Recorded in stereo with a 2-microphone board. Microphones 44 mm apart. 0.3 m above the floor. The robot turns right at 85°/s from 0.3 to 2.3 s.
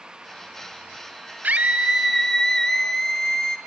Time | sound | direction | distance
1.4 | a scream | 60° right | 1.4 m